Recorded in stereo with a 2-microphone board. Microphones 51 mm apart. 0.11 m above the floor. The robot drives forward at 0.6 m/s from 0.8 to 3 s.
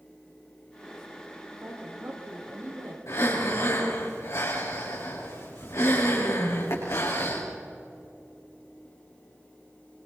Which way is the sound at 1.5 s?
60° right (ahead or behind).